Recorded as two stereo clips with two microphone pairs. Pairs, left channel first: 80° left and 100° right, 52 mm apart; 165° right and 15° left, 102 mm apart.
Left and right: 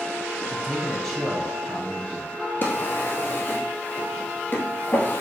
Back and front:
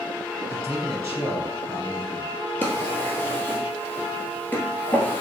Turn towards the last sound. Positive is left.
turn(degrees=125)